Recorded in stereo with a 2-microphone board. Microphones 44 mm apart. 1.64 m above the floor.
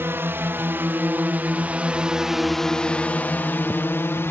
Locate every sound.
0.0 s a drone: 60° right (ahead or behind); by 4.3 s 65° left (ahead or behind)